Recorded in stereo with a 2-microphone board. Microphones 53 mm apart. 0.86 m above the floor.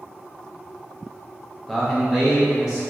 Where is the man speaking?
Centre (ahead or behind), 0.5 m; by 2.8 s 10° right (ahead or behind), 1.9 m.